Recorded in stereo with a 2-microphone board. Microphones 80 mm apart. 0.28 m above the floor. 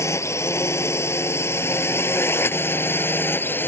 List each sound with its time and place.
0.0 s a drone: 40° left (ahead or behind); by 3.7 s 25° left (ahead or behind)